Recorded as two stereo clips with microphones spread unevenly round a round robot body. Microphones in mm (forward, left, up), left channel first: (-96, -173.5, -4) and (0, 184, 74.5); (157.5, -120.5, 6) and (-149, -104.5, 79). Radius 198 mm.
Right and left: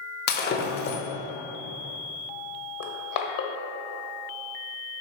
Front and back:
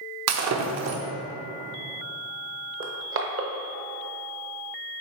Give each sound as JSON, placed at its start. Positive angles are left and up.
{"t": 0.3, "sound": "breaking glass", "azimuth_deg": -145, "distance_m": 0.8}
{"t": 2.8, "sound": "crushing", "azimuth_deg": -130, "distance_m": 1.0}